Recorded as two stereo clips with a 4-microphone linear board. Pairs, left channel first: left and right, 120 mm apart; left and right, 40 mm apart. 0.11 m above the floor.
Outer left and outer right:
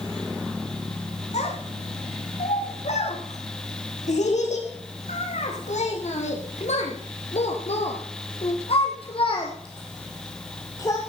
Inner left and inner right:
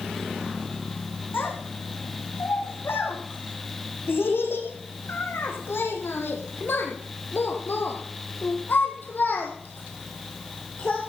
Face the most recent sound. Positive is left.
turn(degrees=30)  # may be behind; listen again after turning